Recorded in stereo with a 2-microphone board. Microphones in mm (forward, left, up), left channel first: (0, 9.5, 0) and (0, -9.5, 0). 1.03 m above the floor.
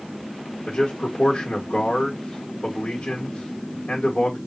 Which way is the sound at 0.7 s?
80° left.